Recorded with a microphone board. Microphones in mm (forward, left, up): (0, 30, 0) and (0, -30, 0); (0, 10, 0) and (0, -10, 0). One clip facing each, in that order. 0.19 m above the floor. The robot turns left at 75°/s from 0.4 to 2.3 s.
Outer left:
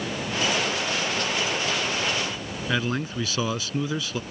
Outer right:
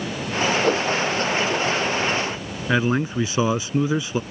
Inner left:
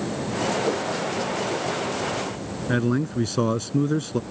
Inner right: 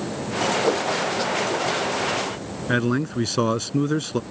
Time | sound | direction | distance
0.6 | a whoosh | 50° right (ahead or behind) | ?
2.7 | a man speaking | 25° right (ahead or behind) | ?